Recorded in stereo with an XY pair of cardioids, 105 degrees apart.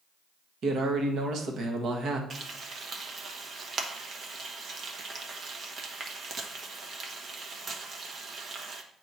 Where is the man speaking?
60° right, 1.2 m.